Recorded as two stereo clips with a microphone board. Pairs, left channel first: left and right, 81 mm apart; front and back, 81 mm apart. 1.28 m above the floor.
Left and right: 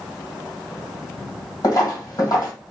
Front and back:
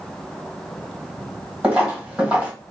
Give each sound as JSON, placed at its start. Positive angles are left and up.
{"t": 1.6, "sound": "footsteps", "azimuth_deg": 100, "distance_m": 1.9}